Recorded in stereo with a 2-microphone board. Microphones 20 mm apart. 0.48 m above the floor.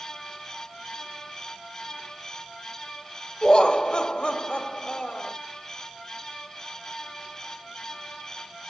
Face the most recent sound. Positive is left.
turn(degrees=45)  # may be behind; listen again after turning